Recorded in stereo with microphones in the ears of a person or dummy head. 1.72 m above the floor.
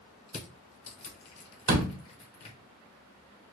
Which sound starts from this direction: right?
A door slam, at 1.7 s.